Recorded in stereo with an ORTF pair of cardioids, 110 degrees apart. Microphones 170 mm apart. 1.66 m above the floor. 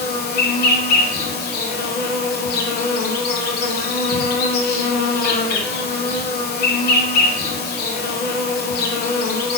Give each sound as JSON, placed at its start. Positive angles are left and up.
{"t": 0.0, "sound": "an insect", "azimuth_deg": 65, "distance_m": 1.3}